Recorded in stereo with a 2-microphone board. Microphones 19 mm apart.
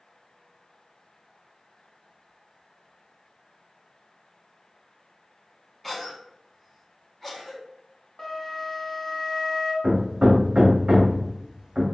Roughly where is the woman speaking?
I don't hear a woman speaking.